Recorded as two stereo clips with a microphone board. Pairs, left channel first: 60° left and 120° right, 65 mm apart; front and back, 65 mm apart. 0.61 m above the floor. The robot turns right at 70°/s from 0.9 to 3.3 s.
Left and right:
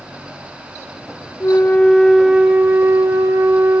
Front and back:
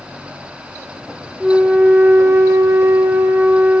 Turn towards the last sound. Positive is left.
turn(degrees=-125)